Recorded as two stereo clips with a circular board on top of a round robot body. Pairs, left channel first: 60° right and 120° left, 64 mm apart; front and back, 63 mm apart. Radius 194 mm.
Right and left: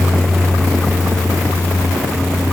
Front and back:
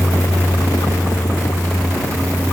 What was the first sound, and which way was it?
Only background noise.